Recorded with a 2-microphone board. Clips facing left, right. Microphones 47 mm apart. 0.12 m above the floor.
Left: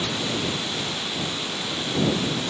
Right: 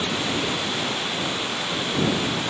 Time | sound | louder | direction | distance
0.0 | running water | right 2 dB | 20° right (ahead or behind) | ?